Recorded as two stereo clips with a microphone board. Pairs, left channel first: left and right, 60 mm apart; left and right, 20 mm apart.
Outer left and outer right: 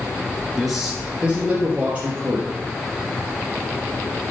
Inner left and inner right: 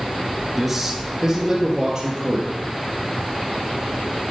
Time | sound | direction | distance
0.6 | a man speaking | centre (ahead or behind) | 1.3 m